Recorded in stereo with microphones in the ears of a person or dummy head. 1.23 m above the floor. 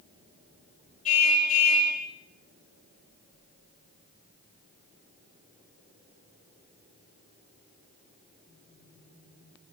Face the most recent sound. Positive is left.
turn(degrees=40)  # may be behind; listen again after turning